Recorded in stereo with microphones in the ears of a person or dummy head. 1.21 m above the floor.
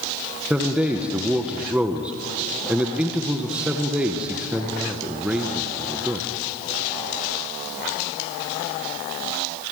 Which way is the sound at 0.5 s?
5° right (ahead or behind).